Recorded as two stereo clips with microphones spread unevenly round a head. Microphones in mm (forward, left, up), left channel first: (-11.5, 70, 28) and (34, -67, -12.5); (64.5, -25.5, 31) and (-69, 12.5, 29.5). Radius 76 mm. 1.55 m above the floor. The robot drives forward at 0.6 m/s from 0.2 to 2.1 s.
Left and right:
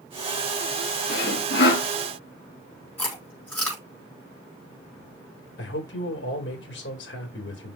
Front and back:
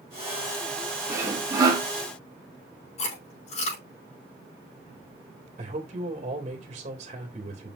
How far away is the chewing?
About 5.5 m.